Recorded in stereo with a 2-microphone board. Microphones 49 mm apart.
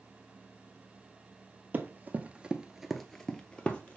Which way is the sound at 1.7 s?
40° right (ahead or behind).